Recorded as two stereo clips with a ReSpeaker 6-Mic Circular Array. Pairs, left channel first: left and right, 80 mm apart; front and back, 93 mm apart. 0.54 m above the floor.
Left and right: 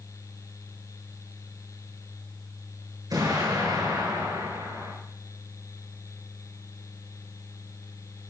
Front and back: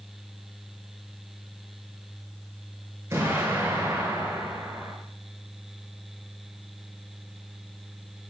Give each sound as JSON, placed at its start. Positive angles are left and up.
{"t": 3.1, "sound": "an explosion", "azimuth_deg": -120, "distance_m": 7.5}